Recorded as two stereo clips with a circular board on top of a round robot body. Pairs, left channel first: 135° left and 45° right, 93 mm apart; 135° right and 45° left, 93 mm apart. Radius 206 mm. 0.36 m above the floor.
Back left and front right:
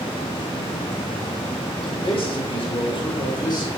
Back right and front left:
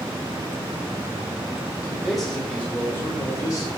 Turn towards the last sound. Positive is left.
turn(degrees=180)